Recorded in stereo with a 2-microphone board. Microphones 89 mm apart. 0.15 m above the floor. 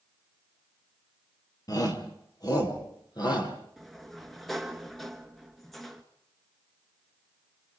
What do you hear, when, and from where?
1.7 s a shout: 45° left (ahead or behind), 3 m; by 3.5 s 50° left (ahead or behind), 5 m
3.8 s a sliding door: centre (ahead or behind), 1.6 m